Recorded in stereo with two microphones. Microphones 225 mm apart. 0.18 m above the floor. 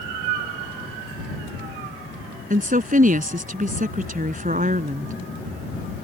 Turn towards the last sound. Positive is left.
turn(degrees=-35)  # may be behind; listen again after turning